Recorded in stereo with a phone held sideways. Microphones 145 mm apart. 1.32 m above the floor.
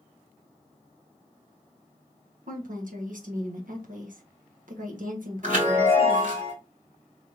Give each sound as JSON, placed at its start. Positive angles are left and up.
{"t": 2.5, "sound": "a woman speaking", "side_deg": -65, "distance_m": 1.2}
{"t": 5.4, "sound": "a chime", "side_deg": -70, "distance_m": 2.5}